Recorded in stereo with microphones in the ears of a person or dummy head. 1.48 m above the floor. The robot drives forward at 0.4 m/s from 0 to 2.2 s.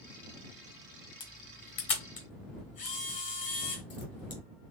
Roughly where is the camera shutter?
Left.